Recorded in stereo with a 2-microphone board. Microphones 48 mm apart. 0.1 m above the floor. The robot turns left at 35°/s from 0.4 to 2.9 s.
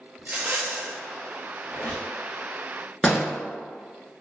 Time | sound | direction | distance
0.2 | a rattle | 45° right (ahead or behind) | 0.8 m
1.7 | a squeak | 40° left (ahead or behind) | 1.1 m
3.0 | a door slam | 15° left (ahead or behind) | 0.8 m